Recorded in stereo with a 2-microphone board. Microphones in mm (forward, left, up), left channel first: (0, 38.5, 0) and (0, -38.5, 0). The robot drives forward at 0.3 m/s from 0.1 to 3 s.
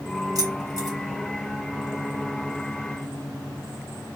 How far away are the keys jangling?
About 1.6 m.